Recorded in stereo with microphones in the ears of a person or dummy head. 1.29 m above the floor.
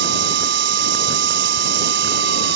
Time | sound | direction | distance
0.0 | a machine running | 70° right (ahead or behind) | ?